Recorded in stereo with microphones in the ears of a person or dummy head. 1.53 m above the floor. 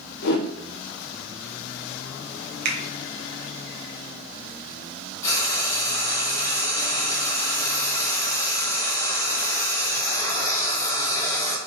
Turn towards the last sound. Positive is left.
turn(degrees=20)  # may be behind; listen again after turning